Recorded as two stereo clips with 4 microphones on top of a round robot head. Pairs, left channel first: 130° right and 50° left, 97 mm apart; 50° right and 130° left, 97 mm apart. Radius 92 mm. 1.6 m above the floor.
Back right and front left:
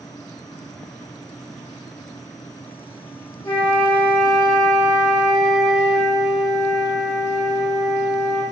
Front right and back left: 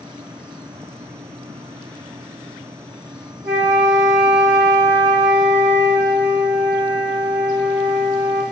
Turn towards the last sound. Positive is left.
turn(degrees=-175)